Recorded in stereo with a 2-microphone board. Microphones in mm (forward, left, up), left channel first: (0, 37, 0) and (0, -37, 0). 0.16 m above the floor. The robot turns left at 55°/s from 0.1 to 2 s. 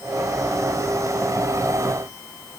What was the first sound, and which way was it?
Only background noise.